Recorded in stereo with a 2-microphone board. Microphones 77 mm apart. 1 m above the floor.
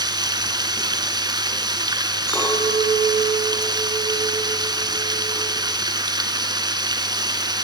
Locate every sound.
0.0 s running water: 60° right (ahead or behind), 1.9 m
2.3 s a clink: 35° left (ahead or behind), 9 m